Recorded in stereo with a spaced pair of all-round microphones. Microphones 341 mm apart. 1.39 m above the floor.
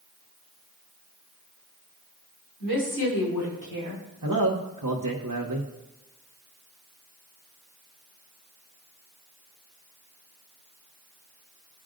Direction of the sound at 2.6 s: 80° left.